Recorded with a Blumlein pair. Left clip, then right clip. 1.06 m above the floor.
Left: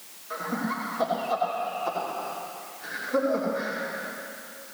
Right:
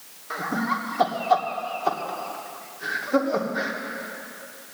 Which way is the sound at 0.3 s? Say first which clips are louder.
Right 5 dB; 65° right.